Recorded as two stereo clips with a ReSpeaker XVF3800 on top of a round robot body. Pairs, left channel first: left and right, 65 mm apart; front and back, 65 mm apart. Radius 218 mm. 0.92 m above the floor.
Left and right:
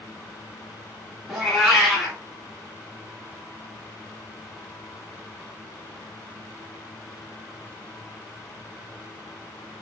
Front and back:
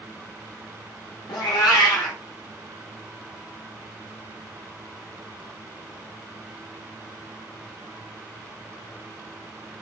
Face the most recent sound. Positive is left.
turn(degrees=0)